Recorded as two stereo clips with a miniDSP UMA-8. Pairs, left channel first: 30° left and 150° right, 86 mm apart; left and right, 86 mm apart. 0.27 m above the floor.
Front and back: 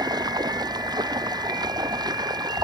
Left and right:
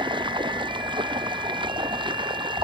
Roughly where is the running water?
Right.